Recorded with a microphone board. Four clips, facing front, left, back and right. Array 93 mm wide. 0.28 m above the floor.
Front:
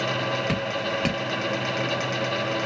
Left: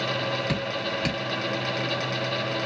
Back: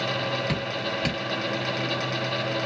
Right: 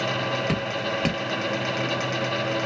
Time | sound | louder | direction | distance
0.5 | dripping | right 2 dB, front 2 dB | 55° right | 1.6 m